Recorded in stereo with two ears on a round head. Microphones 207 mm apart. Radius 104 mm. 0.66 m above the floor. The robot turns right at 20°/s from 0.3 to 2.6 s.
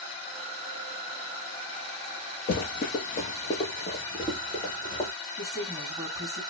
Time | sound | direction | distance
2.5 | running footsteps | 40° left (ahead or behind) | 0.9 m
5.4 | a woman speaking | 15° right (ahead or behind) | 2.0 m